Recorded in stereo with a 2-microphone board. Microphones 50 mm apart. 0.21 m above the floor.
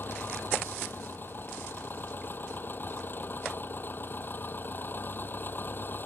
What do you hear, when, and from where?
0.0 s an engine running: 45° left (ahead or behind)